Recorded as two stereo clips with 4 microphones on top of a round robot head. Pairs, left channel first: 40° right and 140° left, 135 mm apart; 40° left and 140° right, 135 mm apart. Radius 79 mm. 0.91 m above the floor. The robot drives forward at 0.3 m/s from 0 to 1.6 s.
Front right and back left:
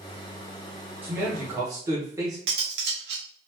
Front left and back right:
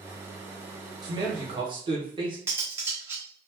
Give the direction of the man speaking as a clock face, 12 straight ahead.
5 o'clock.